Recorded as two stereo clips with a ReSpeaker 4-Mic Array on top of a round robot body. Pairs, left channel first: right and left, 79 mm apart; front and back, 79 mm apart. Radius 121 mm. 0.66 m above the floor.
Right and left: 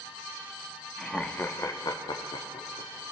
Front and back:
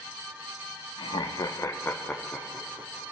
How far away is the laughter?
About 1.1 m.